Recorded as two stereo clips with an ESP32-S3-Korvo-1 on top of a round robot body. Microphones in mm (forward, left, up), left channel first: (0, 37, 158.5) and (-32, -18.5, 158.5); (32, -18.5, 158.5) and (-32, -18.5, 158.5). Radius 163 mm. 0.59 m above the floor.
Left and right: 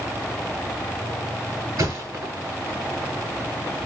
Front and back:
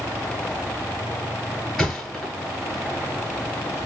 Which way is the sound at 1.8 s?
85° right.